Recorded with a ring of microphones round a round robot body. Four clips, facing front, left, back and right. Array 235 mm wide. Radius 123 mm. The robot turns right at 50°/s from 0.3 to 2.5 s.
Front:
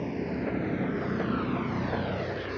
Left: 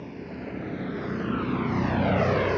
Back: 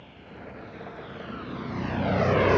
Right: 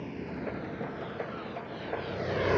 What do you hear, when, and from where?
0.0 s a vehicle: straight ahead; by 2.6 s 175° right